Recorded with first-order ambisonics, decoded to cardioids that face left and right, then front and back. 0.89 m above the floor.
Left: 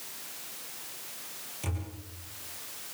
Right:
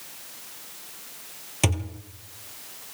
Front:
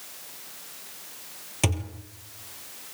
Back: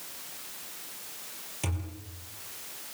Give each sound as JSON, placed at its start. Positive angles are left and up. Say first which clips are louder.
{"t": 1.6, "sound": "a thud", "louder": "right 15 dB, front 10 dB", "azimuth_deg": -55, "distance_m": 3.5}